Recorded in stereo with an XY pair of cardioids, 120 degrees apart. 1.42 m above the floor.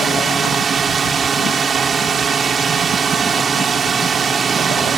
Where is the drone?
35° right.